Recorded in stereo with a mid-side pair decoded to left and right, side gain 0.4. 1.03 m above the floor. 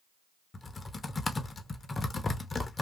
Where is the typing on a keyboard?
35° left, 0.8 m.